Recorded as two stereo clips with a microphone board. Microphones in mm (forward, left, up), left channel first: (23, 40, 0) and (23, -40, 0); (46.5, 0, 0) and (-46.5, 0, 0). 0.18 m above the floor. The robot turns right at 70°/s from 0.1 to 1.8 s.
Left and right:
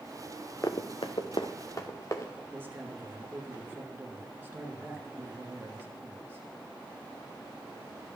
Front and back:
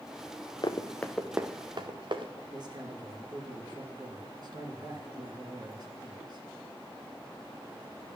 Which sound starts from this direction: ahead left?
Running footsteps, at 0.6 s.